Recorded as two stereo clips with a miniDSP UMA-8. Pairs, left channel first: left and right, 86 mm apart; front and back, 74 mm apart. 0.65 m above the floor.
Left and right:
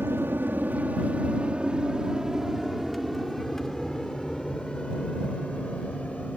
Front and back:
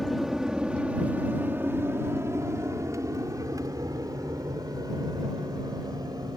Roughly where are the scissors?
No scissors in this recording.